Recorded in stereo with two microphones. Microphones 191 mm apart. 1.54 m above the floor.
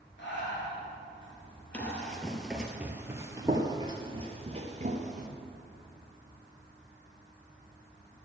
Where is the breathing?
75° left (ahead or behind), 5 m.